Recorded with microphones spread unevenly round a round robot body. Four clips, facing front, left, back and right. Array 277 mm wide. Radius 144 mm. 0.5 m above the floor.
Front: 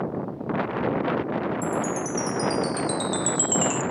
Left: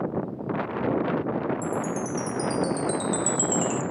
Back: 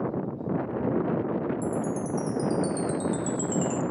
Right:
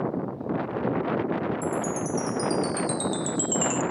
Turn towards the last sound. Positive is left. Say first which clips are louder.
# even, front 2 dB
turn(degrees=-30)